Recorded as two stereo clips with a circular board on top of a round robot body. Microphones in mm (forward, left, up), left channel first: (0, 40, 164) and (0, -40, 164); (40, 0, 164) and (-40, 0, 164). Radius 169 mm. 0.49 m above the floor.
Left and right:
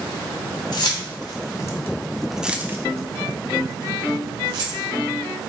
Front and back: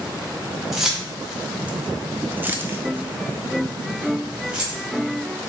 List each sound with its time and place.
0.7 s keys jangling: 95° left, 1.1 m; by 5.5 s 100° right, 2 m